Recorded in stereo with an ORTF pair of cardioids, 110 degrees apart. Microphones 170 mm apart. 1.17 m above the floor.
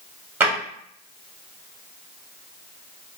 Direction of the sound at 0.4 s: 15° right.